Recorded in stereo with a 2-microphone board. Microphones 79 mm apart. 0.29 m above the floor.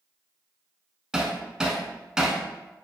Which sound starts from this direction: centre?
Hammering, at 1.1 s.